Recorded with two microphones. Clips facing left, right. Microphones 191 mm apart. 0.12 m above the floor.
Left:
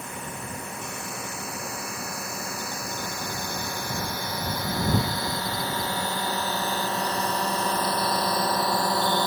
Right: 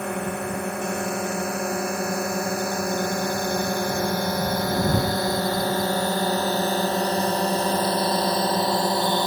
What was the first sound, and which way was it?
A drone, 70° right (ahead or behind).